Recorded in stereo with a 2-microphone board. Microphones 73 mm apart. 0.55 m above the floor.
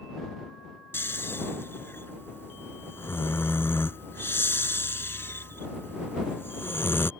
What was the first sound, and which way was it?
Snoring, 35° left (ahead or behind).